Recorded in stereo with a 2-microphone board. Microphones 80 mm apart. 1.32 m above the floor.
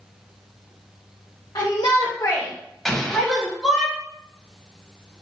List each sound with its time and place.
1.6 s a shout: 60° left (ahead or behind), 1.0 m; by 3.9 s 10° right (ahead or behind), 1.9 m
2.9 s an explosion: 5° left (ahead or behind), 0.7 m